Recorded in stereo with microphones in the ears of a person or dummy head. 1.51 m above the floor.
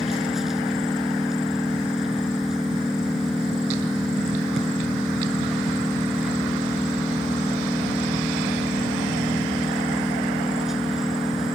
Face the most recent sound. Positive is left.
turn(degrees=0)  # may be behind; listen again after turning